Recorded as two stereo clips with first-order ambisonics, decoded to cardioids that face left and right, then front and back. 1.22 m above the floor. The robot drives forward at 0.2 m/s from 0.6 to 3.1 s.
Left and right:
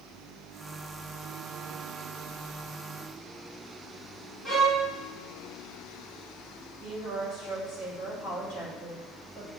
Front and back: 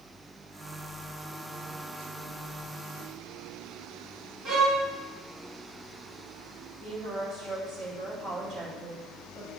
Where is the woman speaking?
115° left, 3 m.